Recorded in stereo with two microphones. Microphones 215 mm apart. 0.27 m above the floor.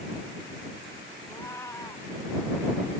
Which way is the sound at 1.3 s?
15° left (ahead or behind).